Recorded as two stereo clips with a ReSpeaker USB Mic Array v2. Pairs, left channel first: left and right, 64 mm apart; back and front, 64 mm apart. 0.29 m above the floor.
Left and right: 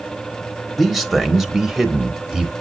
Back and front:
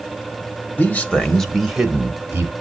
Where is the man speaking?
175° left, 1.1 m; by 2.5 s 10° right, 1.1 m.